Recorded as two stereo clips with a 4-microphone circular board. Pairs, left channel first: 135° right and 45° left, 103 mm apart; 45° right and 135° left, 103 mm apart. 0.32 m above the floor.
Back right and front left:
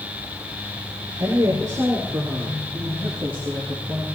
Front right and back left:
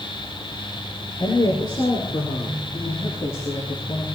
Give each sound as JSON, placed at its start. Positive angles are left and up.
{"t": 1.2, "sound": "a woman speaking", "azimuth_deg": -10, "distance_m": 6.5}